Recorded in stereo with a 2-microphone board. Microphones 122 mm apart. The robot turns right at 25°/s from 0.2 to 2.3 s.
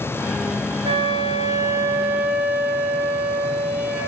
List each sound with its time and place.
0.8 s a flute: 45° right, 1.0 m; by 4.1 s 10° right, 1.0 m